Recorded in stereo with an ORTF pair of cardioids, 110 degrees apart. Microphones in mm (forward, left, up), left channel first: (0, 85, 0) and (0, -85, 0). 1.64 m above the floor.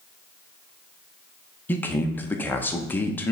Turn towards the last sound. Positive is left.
turn(degrees=10)